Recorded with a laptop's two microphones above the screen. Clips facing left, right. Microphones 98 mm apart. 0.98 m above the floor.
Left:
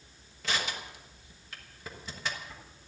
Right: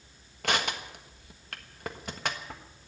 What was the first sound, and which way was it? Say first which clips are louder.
Crushing: right 4 dB; 60° right (ahead or behind).